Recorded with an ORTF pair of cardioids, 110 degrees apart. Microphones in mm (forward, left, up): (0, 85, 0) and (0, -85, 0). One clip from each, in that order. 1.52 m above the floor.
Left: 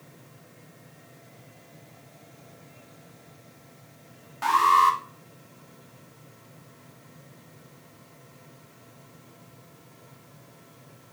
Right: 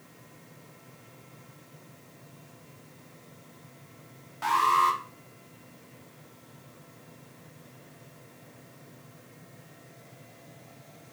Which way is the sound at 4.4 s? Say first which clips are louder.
Left 4 dB; 20° left.